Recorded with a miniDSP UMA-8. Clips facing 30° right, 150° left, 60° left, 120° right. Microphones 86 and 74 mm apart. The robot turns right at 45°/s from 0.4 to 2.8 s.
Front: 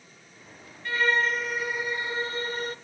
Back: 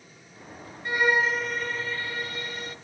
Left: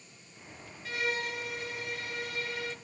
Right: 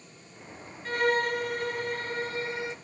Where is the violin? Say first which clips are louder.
Back 1 dB, right 8 dB; 145° right, 0.6 m; by 2.8 s 60° right, 0.6 m.